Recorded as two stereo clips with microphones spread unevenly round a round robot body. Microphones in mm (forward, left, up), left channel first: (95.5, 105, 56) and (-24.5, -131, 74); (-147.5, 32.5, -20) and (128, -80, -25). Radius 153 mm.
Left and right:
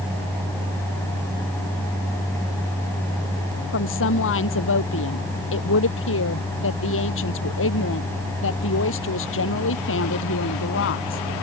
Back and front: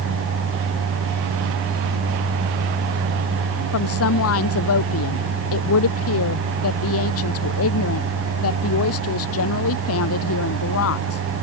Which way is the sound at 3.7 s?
110° left.